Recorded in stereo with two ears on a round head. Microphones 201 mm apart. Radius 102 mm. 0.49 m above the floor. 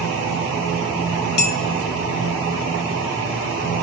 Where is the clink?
45° left (ahead or behind), 0.9 m.